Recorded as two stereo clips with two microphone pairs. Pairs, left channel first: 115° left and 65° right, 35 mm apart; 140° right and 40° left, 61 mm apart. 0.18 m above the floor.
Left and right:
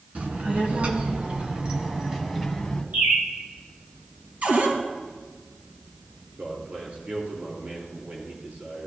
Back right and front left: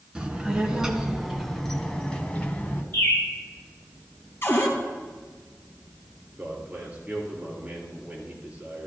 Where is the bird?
85° right, 4 m.